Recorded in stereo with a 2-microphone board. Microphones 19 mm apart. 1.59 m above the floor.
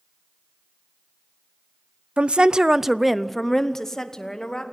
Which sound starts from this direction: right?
A woman speaking, at 2.2 s.